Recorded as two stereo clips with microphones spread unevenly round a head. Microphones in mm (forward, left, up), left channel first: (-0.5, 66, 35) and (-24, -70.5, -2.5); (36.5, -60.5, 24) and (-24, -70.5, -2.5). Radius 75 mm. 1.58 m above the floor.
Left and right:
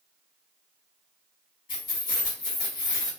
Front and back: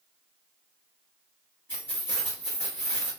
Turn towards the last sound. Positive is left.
turn(degrees=70)